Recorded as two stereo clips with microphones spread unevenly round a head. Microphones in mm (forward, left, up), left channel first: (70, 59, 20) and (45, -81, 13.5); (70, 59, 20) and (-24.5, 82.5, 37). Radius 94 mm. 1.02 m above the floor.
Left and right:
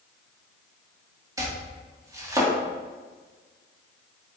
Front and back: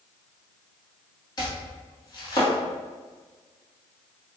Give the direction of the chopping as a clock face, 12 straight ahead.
1 o'clock.